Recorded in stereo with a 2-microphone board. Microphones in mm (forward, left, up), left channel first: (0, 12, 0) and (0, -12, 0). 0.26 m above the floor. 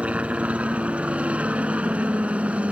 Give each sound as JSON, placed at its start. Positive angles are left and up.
{"t": 0.0, "sound": "a helicopter", "side_deg": -60}